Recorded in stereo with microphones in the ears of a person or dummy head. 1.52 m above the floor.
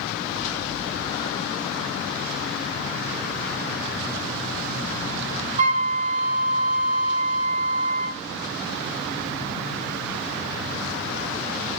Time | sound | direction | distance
5.6 | a flute | 40° right (ahead or behind) | 3 m